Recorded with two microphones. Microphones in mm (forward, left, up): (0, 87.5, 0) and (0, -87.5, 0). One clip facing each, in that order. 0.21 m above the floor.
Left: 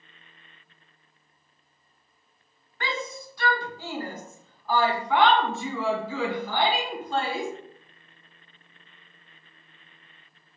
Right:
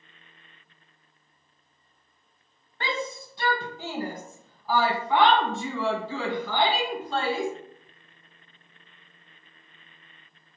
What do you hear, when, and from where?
2.8 s a shout: 35° right (ahead or behind), 1.6 m; by 7.5 s 20° left (ahead or behind), 2.5 m